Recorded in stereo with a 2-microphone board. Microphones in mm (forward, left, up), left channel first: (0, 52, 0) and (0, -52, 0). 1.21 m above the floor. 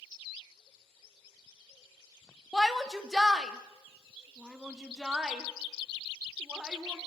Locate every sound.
2.5 s a shout: centre (ahead or behind), 2.5 m; by 7.0 s 10° right (ahead or behind), 4.5 m